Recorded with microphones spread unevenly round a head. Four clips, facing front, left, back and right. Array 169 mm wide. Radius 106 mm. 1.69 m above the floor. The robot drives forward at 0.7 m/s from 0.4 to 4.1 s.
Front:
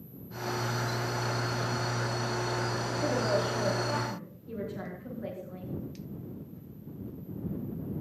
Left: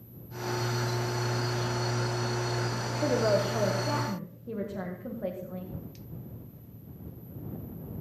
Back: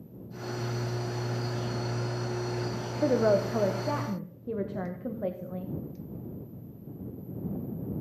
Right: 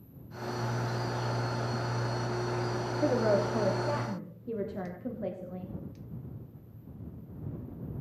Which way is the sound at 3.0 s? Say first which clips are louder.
Left 1 dB, back 6 dB; 175° left.